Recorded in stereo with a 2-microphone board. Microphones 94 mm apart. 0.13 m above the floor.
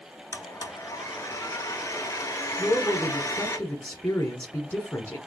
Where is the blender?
35° left (ahead or behind), 0.9 m.